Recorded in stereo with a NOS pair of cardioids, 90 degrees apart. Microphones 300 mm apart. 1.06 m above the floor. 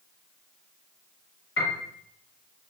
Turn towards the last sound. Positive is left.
turn(degrees=55)